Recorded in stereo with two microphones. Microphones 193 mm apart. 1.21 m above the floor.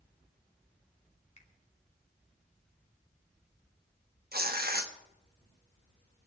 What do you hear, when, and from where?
1.4 s a finger snap: 40° left (ahead or behind), 3 m
4.3 s tearing paper: 55° right (ahead or behind), 1.2 m